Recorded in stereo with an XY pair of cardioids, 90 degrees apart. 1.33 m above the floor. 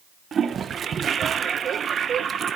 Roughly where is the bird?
No bird in this recording.